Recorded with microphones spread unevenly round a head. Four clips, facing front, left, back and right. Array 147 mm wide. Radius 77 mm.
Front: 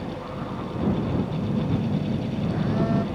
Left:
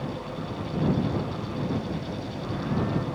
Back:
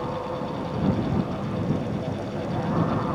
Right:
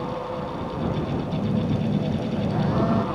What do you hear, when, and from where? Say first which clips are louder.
1.3 s a phone buzzing: right 5 dB, front 1 dB; 65° right